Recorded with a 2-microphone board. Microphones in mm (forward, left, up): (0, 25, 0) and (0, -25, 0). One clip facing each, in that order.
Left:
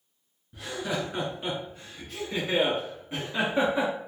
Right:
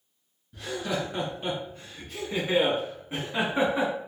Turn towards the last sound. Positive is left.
turn(degrees=-25)  # may be behind; listen again after turning